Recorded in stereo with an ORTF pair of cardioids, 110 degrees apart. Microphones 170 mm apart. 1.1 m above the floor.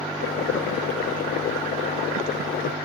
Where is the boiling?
70° left.